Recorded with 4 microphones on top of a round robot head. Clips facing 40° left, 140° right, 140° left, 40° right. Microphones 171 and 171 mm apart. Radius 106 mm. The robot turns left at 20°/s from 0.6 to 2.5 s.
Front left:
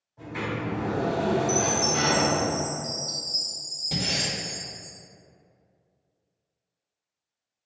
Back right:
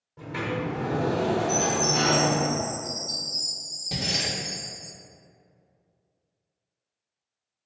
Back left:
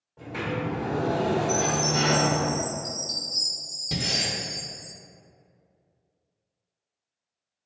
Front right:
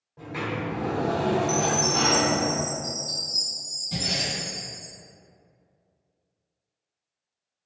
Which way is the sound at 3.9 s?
130° left.